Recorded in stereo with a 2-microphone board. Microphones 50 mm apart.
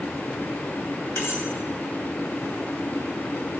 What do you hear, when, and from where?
1.2 s cutlery clinking: 65° left (ahead or behind), 2 m